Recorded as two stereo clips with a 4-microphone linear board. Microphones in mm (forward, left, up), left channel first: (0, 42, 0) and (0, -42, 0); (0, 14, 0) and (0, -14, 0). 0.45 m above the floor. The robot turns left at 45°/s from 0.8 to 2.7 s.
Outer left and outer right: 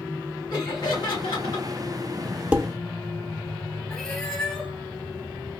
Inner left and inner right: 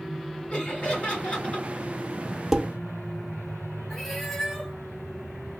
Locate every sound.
0.5 s laughter: 110° left, 2.5 m; by 1.7 s 70° left, 2.5 m
2.5 s dishes clattering: 15° right (ahead or behind), 0.5 m; by 2.7 s 20° right (ahead or behind), 0.5 m
3.9 s a cat meowing: 5° left (ahead or behind), 1.0 m